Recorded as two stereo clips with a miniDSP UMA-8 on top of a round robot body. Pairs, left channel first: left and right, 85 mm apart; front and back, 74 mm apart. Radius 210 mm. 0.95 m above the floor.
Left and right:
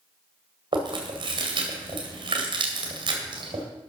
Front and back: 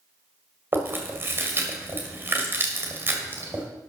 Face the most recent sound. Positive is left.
turn(degrees=-120)